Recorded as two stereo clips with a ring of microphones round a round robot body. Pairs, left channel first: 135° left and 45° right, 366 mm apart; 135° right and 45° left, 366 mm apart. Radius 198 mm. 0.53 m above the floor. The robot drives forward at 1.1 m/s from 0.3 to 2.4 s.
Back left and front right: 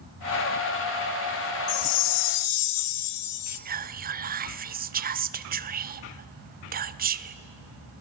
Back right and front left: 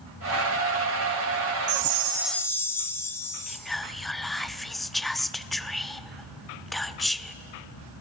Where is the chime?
80° left, 0.6 m; by 3.6 s 140° left, 0.9 m.